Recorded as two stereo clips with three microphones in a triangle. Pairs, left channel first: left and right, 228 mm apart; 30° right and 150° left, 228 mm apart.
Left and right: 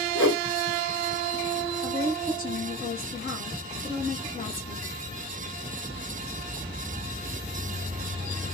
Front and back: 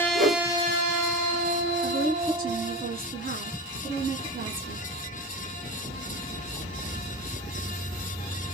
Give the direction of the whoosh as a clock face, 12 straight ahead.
9 o'clock.